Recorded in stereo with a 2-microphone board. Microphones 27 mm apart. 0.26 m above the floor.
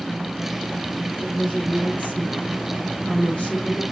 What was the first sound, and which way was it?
A woman speaking, 55° left (ahead or behind).